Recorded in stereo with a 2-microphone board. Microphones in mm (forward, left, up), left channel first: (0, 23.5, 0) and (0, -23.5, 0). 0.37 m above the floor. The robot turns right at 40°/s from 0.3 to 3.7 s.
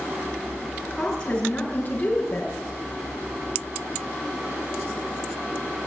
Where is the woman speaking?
5° left, 6 m; by 2.5 s 70° left, 6 m.